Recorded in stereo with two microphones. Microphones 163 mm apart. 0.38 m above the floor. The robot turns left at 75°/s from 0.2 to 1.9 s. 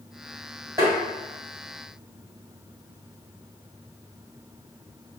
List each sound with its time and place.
0.8 s tapping: 20° right (ahead or behind), 1.7 m; by 1.0 s 30° right (ahead or behind), 1.7 m